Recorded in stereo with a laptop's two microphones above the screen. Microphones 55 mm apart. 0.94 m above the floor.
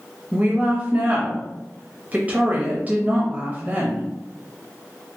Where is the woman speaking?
30° right (ahead or behind), 0.6 m.